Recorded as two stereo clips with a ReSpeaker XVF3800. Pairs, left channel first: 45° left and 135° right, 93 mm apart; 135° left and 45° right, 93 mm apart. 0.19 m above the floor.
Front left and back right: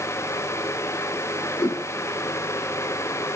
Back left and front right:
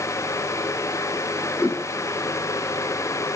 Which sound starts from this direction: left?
A whoosh, at 1.6 s.